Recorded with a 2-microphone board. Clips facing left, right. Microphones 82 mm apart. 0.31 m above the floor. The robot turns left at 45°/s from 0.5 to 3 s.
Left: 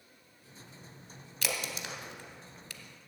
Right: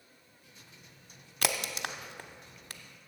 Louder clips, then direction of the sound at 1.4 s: Right 4 dB; 60° right (ahead or behind).